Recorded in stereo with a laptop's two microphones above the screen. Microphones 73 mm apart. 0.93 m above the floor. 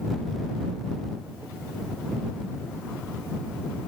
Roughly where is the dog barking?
No dog barking in this recording.